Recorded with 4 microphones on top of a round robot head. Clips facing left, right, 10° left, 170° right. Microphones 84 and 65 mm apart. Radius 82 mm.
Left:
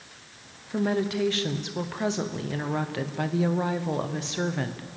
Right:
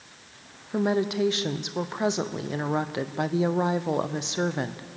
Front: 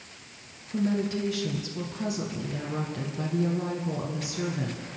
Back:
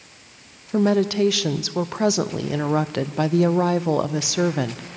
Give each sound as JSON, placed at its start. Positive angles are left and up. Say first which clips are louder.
{"t": 0.7, "sound": "a woman speaking", "louder": "right 1 dB, back 9 dB", "azimuth_deg": -165, "distance_m": 0.8}